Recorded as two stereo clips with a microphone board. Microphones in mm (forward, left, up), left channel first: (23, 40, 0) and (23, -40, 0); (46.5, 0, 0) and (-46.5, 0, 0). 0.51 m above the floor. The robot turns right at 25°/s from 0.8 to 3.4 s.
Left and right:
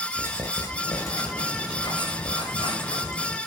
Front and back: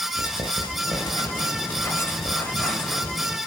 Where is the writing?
35° left, 5.5 m; by 3.4 s 100° left, 5.5 m.